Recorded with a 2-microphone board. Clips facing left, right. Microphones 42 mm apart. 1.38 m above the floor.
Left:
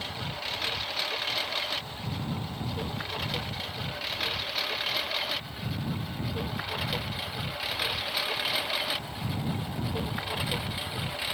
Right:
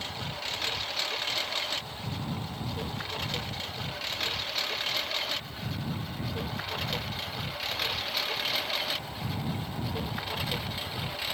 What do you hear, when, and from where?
0.0 s a lawn mower: 5° left (ahead or behind)